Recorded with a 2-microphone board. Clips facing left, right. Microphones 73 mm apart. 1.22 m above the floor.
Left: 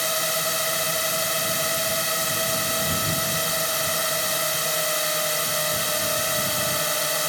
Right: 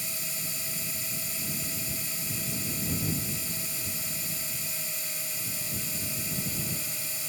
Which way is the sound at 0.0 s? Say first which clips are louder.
Left 16 dB; 70° left (ahead or behind).